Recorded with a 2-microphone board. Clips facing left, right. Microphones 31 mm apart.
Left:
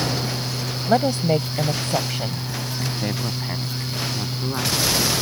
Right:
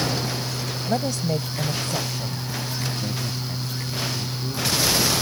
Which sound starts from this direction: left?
A woman speaking, at 0.9 s.